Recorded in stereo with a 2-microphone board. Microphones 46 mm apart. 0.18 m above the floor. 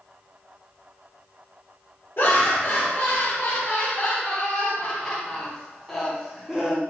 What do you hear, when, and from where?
2.2 s laughter: 50° left (ahead or behind), 2.0 m; by 6.8 s 10° right (ahead or behind), 1.5 m